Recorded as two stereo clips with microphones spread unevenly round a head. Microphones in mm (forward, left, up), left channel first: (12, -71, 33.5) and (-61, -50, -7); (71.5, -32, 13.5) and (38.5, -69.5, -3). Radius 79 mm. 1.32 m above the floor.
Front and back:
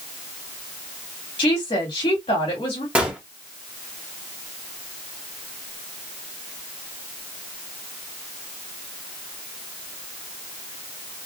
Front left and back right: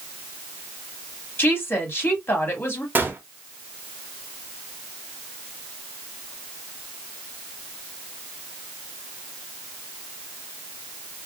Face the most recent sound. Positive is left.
turn(degrees=-85)